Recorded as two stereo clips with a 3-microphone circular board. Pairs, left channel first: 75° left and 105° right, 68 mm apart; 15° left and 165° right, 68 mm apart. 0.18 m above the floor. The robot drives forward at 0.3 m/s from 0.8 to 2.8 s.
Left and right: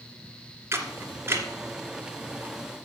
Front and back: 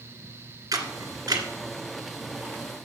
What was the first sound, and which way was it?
A camera shutter, 150° right.